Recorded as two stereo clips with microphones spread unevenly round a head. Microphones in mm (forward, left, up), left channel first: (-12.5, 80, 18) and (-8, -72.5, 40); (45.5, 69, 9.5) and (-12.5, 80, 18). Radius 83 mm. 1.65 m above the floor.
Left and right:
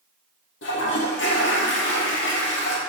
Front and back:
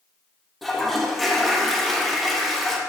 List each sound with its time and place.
0.6 s a toilet flushing: 85° left, 1.8 m